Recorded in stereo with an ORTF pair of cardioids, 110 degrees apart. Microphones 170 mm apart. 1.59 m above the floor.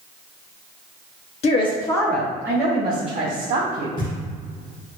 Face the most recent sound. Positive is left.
turn(degrees=30)